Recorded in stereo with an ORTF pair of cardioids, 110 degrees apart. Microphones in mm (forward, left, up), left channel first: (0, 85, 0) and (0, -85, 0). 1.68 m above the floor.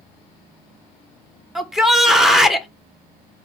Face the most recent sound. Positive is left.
turn(degrees=0)